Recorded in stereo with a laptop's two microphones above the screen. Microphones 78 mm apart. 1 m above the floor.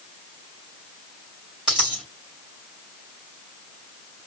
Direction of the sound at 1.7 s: 10° right (ahead or behind).